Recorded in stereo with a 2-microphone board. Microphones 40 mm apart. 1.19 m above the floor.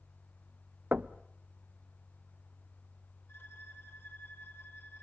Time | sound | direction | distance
0.9 | knocking | 45° right (ahead or behind) | 0.7 m
3.3 | a violin | 70° left (ahead or behind) | 3 m